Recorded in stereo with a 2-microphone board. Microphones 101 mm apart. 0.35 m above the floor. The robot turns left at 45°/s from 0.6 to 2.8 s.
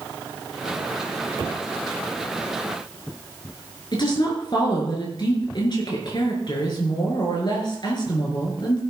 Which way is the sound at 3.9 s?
50° left (ahead or behind).